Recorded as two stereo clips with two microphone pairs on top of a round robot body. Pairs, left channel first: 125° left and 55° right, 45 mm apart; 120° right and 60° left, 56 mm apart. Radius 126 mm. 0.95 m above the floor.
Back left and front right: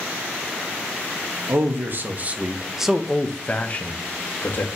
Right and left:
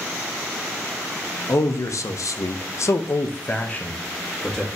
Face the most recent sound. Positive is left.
turn(degrees=155)